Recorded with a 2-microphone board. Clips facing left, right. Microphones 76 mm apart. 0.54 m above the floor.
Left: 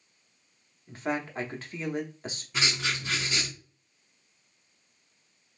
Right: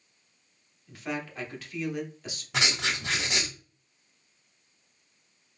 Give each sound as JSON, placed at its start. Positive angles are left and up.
{"t": 0.9, "sound": "a man speaking", "side_deg": 35, "distance_m": 0.8}
{"t": 2.5, "sound": "writing", "side_deg": -75, "distance_m": 1.4}